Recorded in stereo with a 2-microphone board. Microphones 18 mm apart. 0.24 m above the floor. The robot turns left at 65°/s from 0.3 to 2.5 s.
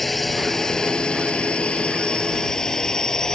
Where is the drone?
10° left (ahead or behind); by 3.4 s 35° left (ahead or behind).